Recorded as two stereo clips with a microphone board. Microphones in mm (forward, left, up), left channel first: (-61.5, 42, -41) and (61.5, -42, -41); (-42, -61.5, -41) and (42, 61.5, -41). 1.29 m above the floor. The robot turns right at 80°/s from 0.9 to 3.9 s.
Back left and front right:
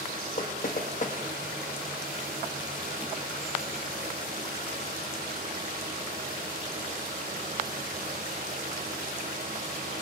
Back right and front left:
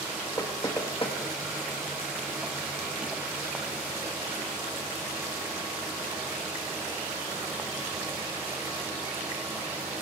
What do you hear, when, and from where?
0.4 s knocking: 170° left, 1.2 m; by 1.2 s 170° right, 1.2 m